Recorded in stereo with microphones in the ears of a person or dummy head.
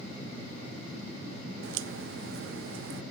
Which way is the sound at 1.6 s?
70° right (ahead or behind).